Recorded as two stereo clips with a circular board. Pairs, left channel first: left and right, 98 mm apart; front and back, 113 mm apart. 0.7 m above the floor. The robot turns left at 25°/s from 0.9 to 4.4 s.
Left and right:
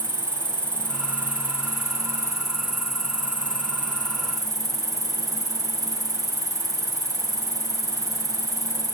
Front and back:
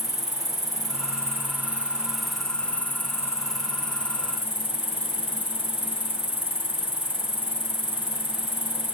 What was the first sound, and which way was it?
An insect, 125° left.